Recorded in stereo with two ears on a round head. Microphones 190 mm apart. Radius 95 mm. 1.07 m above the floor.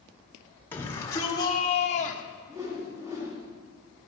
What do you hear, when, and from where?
0.7 s a shout: 10° left (ahead or behind), 2.0 m; by 2.2 s 40° left (ahead or behind), 1.1 m
2.5 s a whoosh: 15° right (ahead or behind), 2.5 m